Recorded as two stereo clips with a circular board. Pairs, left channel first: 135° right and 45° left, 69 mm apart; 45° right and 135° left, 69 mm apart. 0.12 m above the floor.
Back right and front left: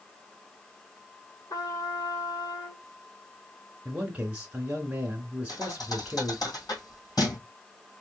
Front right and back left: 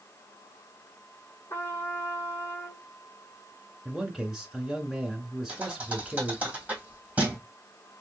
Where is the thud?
160° right, 2.5 m.